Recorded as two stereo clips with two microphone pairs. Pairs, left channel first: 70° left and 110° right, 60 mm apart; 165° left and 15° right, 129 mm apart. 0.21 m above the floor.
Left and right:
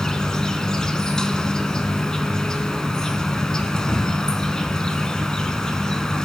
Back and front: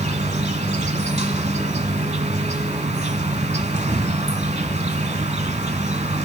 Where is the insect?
10° right, 0.8 m.